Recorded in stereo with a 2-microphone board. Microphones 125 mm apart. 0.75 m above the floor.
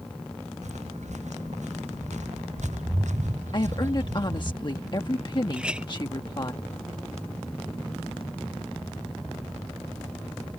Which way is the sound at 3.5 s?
40° left (ahead or behind).